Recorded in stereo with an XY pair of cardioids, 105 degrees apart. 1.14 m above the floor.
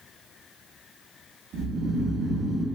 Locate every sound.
1.5 s snoring: 65° right, 0.6 m